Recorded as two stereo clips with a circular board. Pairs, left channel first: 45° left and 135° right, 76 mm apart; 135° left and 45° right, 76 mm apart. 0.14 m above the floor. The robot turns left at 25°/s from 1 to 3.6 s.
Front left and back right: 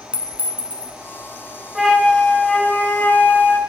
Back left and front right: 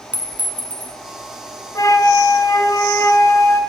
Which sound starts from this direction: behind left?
A flute, at 1.8 s.